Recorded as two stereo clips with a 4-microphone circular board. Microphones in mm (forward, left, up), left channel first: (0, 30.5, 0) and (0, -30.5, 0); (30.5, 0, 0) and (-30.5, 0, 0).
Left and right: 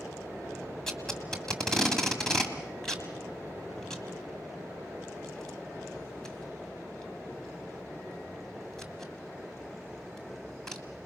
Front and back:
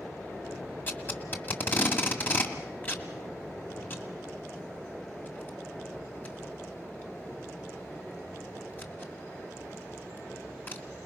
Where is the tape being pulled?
15° left, 1.8 m.